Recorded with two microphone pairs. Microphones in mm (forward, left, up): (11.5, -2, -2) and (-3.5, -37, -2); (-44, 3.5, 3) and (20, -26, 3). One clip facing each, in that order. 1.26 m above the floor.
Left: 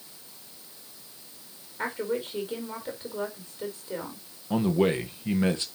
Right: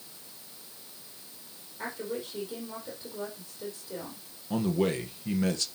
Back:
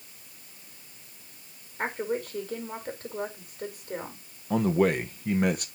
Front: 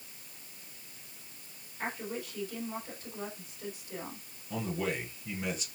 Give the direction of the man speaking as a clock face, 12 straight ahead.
8 o'clock.